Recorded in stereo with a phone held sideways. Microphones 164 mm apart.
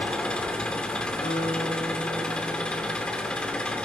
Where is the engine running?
5° left (ahead or behind), 2 m.